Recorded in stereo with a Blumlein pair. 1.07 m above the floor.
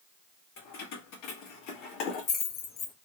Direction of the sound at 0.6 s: 45° left.